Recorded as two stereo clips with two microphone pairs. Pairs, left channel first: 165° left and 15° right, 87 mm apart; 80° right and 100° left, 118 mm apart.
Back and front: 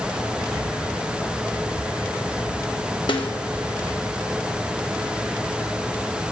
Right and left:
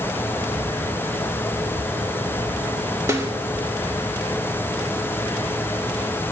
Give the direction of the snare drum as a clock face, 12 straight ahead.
7 o'clock.